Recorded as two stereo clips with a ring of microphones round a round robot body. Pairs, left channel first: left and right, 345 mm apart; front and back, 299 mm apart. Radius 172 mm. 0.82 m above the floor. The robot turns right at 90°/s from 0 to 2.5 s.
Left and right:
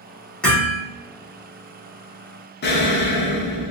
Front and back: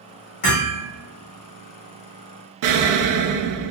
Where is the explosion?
155° left, 0.7 m.